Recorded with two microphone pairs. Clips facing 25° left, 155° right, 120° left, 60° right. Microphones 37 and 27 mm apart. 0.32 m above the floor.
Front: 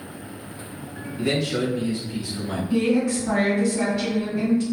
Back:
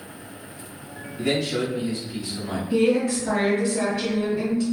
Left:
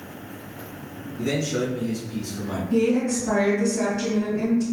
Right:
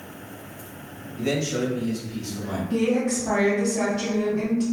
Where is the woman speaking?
90° right, 1.6 m.